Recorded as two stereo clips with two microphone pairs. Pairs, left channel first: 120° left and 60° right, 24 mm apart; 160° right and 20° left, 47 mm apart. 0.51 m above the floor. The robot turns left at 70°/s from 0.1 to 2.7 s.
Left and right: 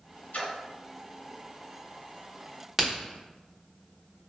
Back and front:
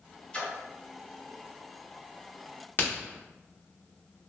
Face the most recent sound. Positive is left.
turn(degrees=-140)